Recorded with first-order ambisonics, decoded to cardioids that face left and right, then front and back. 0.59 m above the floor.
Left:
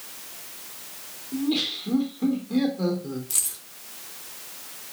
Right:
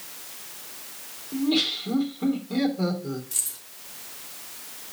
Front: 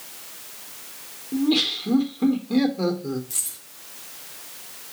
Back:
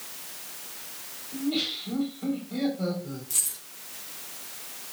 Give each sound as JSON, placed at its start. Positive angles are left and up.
{"t": 1.3, "sound": "laughter", "azimuth_deg": 0, "distance_m": 2.0}
{"t": 3.3, "sound": "keys jangling", "azimuth_deg": 100, "distance_m": 4.0}